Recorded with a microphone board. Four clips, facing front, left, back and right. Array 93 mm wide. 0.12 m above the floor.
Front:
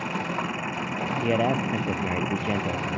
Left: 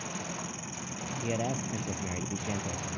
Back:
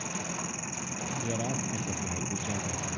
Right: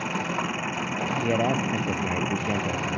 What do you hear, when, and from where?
0.0 s an engine running: 50° right
1.2 s a man speaking: 35° right